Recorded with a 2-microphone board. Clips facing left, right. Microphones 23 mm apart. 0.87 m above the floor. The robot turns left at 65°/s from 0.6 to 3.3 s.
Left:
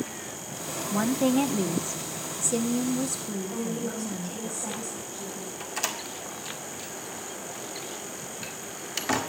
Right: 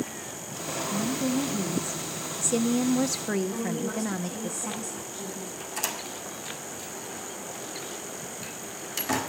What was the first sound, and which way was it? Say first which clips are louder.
A woman speaking: left 5 dB; 90° left.